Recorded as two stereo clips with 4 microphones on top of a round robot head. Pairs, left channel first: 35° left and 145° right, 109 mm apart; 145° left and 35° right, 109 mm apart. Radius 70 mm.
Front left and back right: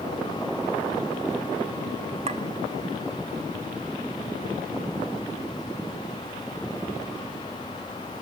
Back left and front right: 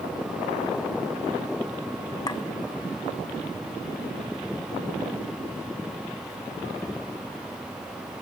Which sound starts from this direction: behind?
A clink, at 2.3 s.